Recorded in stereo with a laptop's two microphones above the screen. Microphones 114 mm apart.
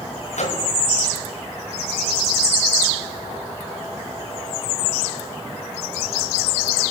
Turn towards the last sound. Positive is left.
turn(degrees=80)